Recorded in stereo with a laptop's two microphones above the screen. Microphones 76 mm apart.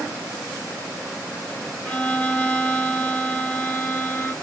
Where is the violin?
20° left (ahead or behind), 0.6 m.